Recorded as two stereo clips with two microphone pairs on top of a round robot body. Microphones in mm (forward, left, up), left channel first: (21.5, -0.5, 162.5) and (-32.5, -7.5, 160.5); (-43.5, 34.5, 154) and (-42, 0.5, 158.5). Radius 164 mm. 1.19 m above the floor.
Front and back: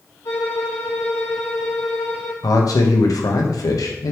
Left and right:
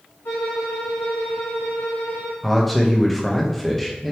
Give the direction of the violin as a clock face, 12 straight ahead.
10 o'clock.